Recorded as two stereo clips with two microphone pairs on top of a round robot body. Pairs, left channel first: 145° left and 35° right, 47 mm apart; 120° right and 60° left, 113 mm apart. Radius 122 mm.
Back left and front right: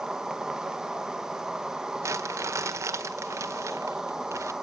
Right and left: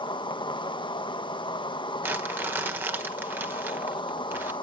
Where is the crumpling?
15° right, 1.9 m.